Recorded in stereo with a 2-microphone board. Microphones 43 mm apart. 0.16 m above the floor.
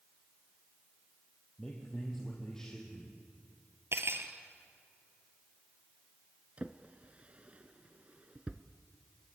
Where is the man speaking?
10° left (ahead or behind), 4.5 m.